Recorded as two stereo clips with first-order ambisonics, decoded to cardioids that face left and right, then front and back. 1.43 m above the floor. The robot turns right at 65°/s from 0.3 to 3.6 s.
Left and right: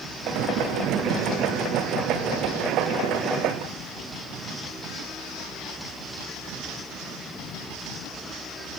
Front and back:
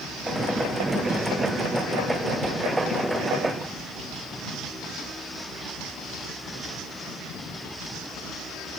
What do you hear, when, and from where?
Only background noise.